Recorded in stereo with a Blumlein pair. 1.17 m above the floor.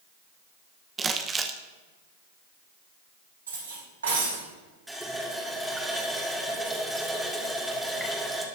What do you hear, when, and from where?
1.0 s crumpling: 15° right, 1.0 m
3.5 s cutlery clinking: 70° right, 4 m
4.9 s a running tap: straight ahead, 2.0 m